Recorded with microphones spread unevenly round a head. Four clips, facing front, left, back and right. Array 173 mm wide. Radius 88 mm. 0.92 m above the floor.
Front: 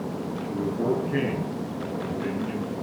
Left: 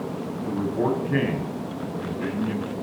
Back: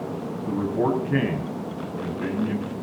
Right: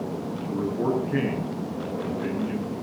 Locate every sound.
0.5 s a man speaking: 145° left, 5.5 m